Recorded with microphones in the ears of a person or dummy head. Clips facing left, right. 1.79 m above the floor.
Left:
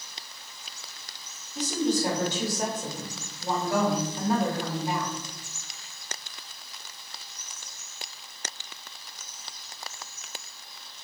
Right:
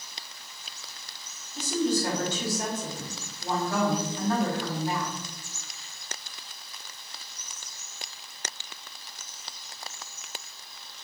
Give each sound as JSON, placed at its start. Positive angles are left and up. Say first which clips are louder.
{"t": 1.6, "sound": "a woman speaking", "louder": "even", "side_deg": 15, "distance_m": 1.5}